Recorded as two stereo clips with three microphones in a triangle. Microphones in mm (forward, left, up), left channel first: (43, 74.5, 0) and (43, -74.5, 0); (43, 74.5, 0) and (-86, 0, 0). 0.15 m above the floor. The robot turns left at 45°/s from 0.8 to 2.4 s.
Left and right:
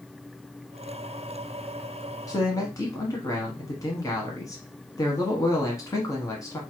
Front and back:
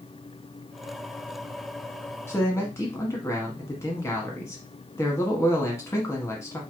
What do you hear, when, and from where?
2.3 s a man speaking: 75° left, 1.1 m; by 6.6 s 70° left, 1.1 m